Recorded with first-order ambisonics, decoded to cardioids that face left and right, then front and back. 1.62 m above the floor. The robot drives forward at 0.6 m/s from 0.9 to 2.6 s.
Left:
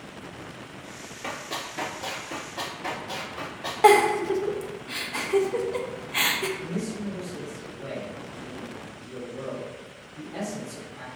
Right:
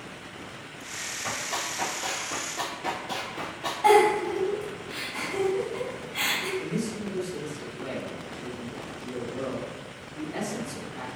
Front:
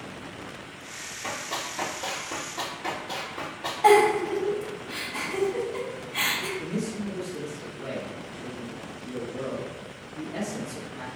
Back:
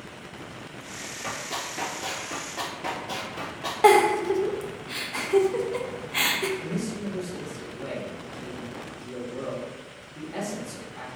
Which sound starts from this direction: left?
Running footsteps, at 1.2 s.